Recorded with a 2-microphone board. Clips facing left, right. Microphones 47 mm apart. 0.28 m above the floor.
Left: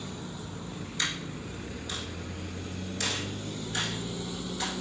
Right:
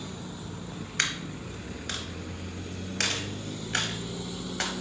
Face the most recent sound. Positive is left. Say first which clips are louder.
# right 3 dB
turn(degrees=-60)  # may be behind; listen again after turning